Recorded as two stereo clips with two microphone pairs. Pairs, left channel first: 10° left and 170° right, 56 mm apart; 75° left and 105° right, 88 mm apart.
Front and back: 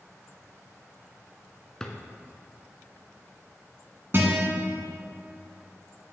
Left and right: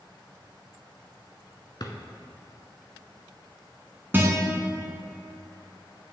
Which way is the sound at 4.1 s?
160° right.